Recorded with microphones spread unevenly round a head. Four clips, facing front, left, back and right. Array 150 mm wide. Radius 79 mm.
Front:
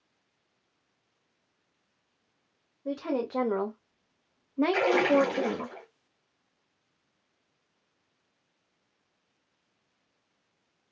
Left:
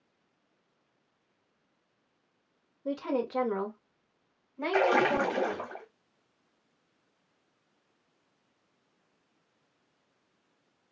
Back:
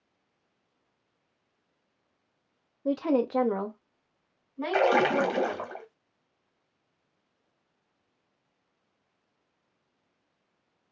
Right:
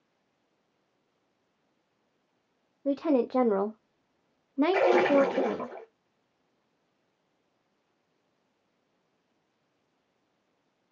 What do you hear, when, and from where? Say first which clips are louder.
2.9 s a woman speaking: right 6 dB, back 5 dB; 135° right, 0.8 m; by 5.7 s 30° right, 1.2 m
4.7 s a splash: right 2 dB, back 2 dB; 140° left, 1.0 m